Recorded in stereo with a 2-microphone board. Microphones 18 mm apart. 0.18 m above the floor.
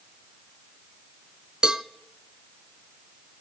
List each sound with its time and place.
1.6 s a cowbell: 45° right (ahead or behind), 0.6 m